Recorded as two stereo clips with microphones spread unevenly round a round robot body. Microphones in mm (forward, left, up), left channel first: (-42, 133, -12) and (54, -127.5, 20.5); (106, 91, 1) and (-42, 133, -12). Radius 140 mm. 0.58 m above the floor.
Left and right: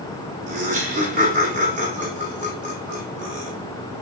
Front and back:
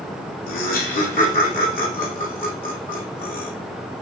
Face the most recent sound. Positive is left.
turn(degrees=-5)